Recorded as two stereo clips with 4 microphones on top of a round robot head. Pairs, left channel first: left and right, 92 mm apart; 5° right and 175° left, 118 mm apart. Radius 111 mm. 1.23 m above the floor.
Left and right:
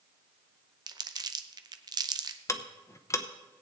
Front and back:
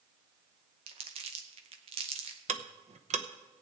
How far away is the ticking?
About 0.8 m.